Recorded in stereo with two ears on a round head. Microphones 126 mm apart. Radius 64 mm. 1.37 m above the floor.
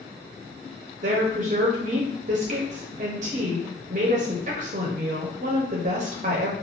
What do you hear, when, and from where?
1.0 s a woman speaking: 55° right (ahead or behind), 0.7 m